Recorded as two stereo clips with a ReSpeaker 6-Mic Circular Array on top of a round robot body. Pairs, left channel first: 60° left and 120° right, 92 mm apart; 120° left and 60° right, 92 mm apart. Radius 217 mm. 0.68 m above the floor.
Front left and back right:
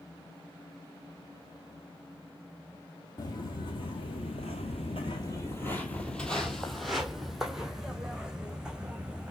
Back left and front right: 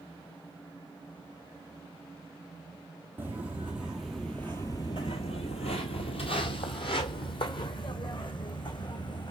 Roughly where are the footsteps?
Ahead.